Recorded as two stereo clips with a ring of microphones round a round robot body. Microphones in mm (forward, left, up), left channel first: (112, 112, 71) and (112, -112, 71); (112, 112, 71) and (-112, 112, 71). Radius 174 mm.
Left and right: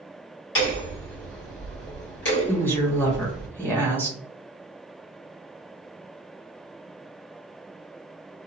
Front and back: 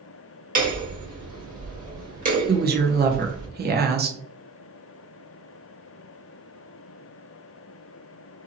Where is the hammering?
130° left, 1.7 m.